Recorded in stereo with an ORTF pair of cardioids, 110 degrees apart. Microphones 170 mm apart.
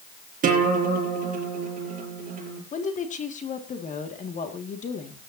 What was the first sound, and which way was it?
A guitar, 50° right.